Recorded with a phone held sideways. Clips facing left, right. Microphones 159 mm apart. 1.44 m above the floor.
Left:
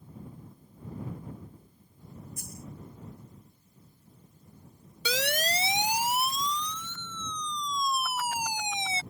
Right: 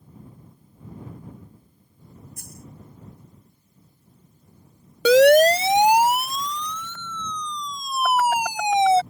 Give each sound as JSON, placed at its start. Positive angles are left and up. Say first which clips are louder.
{"t": 2.4, "sound": "a dropped coin", "louder": "even", "side_deg": -60}
{"t": 5.0, "sound": "a siren", "louder": "right 19 dB", "side_deg": -75}